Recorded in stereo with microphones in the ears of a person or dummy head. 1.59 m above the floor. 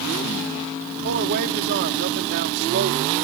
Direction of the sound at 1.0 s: 60° right (ahead or behind).